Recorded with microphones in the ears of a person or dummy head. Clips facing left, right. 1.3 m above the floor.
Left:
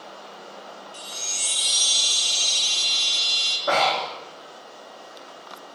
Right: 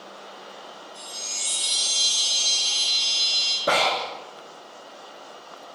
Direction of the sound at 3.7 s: 40° right (ahead or behind).